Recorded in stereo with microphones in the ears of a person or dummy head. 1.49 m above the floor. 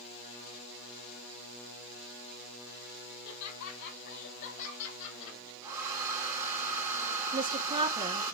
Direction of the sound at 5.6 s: 10° right (ahead or behind).